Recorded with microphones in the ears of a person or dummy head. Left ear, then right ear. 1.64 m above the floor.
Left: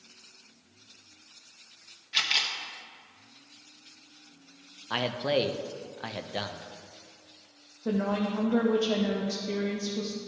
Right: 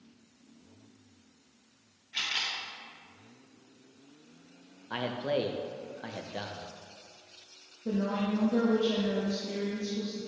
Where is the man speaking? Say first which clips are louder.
Left 4 dB; 25° left (ahead or behind), 0.5 m.